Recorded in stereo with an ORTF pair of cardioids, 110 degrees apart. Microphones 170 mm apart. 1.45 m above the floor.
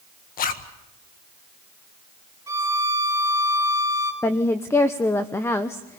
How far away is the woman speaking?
About 1.0 m.